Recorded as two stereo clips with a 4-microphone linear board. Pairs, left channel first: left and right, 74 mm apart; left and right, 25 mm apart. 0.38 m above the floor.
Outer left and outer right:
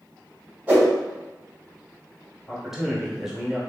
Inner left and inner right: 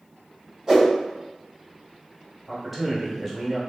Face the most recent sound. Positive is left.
turn(degrees=-5)  # may be behind; listen again after turning